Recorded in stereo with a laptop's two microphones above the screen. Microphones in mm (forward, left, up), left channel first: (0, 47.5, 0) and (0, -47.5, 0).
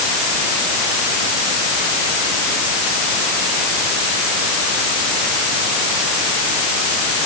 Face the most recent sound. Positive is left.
No sound to turn to.